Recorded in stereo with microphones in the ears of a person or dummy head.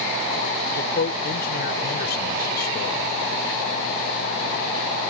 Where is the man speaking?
70° left (ahead or behind); by 3.1 s 55° left (ahead or behind).